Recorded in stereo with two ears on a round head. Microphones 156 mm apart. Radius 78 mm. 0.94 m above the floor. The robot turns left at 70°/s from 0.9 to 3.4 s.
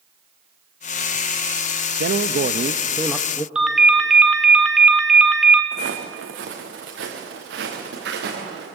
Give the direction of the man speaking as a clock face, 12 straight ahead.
3 o'clock.